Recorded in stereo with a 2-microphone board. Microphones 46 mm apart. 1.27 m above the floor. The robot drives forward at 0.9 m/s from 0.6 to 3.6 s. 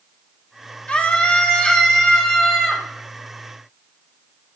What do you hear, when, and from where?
0.9 s a scream: 30° left (ahead or behind), 1.4 m; by 2.8 s 15° left (ahead or behind), 3 m